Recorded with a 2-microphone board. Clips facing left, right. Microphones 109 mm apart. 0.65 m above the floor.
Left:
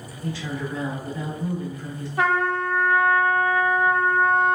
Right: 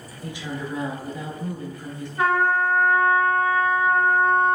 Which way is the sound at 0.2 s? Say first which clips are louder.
Left 2 dB; 15° right (ahead or behind).